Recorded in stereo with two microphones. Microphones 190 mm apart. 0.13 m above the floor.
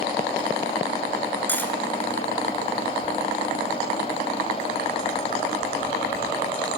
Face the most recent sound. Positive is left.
turn(degrees=10)  # may be behind; listen again after turning